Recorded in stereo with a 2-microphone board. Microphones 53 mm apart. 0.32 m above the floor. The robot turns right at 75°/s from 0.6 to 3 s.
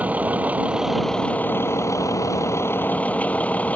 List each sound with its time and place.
0.0 s a vehicle: 25° right; by 3.8 s 155° left